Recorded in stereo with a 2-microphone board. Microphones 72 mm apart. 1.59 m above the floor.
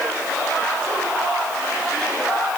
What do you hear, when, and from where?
Only background noise.